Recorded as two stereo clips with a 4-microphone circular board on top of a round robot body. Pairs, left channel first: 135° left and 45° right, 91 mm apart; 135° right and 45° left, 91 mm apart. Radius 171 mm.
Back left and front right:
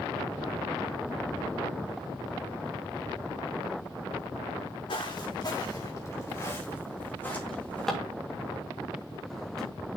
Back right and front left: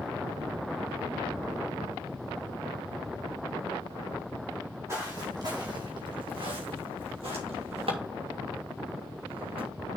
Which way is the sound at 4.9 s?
105° left.